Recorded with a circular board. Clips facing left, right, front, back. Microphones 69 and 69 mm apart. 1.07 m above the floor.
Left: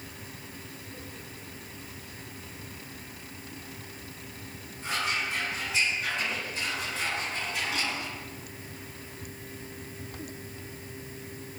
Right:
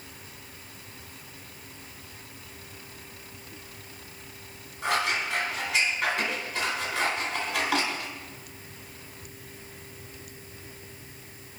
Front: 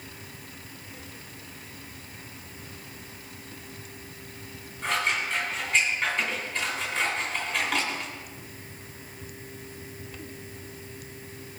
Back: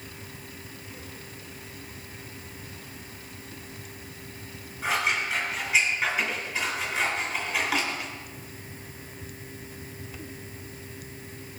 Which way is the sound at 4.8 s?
95° right.